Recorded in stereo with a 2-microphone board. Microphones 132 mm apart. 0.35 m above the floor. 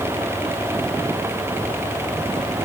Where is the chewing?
No chewing in this recording.